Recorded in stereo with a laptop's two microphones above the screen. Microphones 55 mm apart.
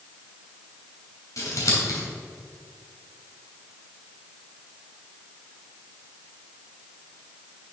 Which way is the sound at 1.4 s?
80° left.